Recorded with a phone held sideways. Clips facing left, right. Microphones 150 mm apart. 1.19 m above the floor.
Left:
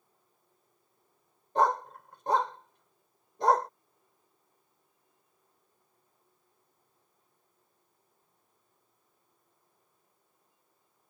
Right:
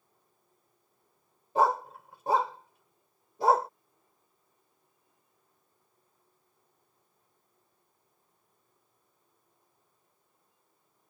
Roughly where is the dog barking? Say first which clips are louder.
Right 1 dB; centre.